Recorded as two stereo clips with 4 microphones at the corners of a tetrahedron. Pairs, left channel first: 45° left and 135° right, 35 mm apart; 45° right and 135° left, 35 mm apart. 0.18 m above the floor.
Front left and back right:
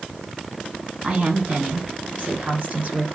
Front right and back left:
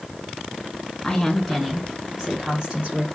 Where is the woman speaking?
110° right, 1.4 m; by 3.0 s 170° right, 2.5 m.